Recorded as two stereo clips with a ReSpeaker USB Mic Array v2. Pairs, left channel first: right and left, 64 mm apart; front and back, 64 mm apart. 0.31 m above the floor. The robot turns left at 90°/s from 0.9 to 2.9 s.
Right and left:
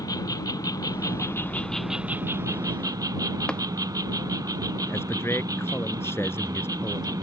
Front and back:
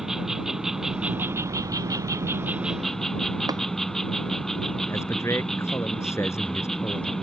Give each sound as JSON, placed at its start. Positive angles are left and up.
{"t": 0.0, "sound": "an insect", "azimuth_deg": -95}
{"t": 3.5, "sound": "tapping", "azimuth_deg": -165}
{"t": 4.9, "sound": "a man speaking", "azimuth_deg": -40}